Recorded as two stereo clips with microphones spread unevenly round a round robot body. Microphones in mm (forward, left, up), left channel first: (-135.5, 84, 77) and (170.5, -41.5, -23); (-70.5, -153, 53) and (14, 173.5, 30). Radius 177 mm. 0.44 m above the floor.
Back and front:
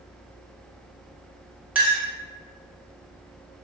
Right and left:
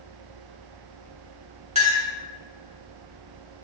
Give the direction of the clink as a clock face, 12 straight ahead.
11 o'clock.